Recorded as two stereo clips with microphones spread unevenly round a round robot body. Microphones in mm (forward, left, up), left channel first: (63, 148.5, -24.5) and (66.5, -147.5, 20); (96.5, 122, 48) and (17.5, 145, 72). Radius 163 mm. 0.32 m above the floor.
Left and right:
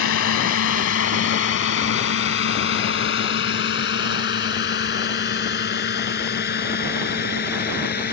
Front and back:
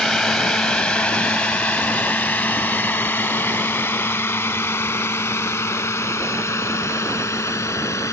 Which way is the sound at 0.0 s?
65° left.